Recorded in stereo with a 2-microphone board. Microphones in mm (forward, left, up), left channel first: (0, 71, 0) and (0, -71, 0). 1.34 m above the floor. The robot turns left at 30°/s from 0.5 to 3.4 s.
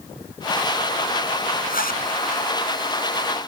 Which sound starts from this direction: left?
A zipper, at 1.7 s.